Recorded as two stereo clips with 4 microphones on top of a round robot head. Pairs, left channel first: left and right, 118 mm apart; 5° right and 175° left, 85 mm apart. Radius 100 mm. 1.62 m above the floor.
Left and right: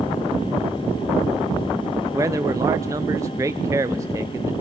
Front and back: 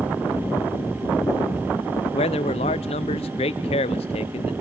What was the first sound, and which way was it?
A man speaking, 20° right.